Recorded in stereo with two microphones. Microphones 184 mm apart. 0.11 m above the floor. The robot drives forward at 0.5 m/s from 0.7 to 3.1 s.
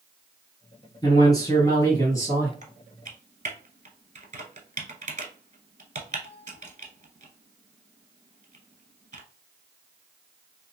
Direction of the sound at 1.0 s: 20° left (ahead or behind).